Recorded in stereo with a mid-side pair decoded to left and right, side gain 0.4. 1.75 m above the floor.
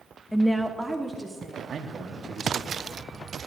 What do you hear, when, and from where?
0.3 s a woman speaking: 10° left, 0.9 m; by 1.6 s 25° right, 2.5 m
1.7 s a man speaking: 60° right, 1.5 m